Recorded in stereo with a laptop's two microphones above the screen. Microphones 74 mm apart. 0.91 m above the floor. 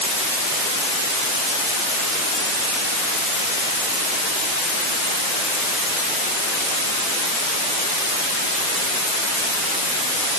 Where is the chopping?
I don't hear chopping.